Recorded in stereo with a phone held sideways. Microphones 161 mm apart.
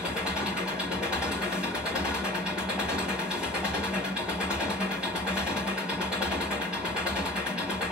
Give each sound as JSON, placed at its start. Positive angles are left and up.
{"t": 0.0, "sound": "an engine running", "side_deg": -5, "distance_m": 1.3}